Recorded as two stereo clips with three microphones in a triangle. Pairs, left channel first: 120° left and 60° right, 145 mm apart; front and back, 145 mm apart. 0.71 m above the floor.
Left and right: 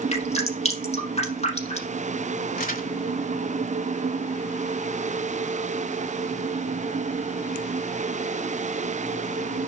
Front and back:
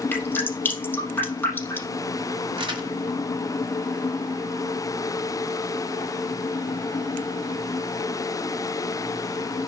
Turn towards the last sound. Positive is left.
turn(degrees=130)